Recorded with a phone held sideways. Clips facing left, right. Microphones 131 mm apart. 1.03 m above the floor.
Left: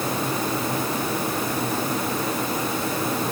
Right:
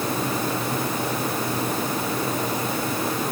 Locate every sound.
Only background noise.